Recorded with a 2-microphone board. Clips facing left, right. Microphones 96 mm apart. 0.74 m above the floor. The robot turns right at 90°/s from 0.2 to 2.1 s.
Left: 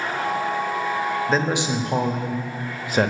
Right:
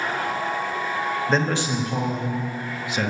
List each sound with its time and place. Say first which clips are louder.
1.3 s a man speaking: right 1 dB; straight ahead, 0.9 m; by 3.1 s 70° left, 0.9 m